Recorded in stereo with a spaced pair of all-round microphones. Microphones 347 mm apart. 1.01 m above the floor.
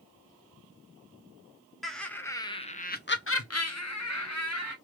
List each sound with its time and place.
1.8 s laughter: centre (ahead or behind), 1.1 m; by 4.8 s 45° left (ahead or behind), 1.1 m